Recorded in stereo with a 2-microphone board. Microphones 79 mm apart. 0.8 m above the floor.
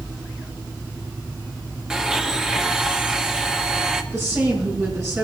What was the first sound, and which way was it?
A blender, 10° right (ahead or behind).